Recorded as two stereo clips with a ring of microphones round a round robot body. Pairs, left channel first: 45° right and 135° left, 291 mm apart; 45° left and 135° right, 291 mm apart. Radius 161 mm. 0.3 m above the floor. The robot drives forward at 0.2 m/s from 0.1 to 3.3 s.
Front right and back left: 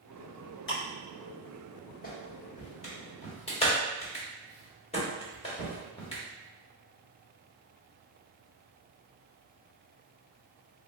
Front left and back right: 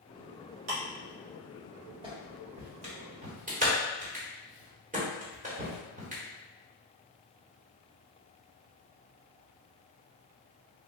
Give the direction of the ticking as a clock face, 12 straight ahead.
3 o'clock.